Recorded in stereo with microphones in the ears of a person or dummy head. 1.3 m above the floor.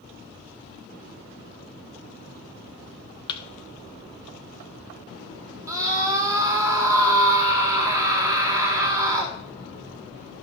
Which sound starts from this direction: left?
A thud, at 3.3 s.